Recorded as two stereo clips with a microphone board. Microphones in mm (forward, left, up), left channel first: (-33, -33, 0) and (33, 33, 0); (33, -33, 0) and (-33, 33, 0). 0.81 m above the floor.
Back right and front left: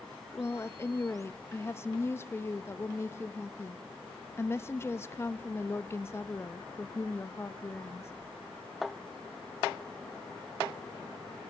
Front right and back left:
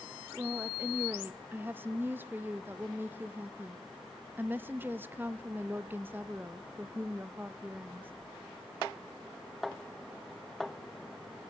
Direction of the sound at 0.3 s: 175° right.